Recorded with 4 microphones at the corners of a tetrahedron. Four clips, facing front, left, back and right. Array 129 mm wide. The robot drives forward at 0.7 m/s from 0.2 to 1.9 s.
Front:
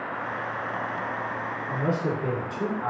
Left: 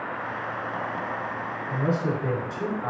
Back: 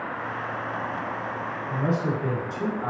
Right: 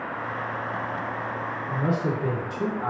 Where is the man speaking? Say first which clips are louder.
Even, back 1 dB; 45° right, 0.9 m; by 2.9 s 60° right, 0.8 m.